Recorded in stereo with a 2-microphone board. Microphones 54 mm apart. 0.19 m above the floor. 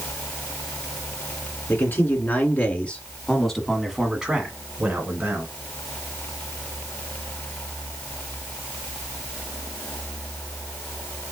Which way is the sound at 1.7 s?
40° left (ahead or behind).